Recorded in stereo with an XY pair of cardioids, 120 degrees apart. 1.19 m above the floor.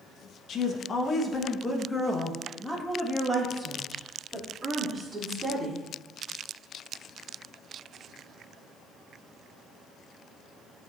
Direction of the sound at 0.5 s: 50° left.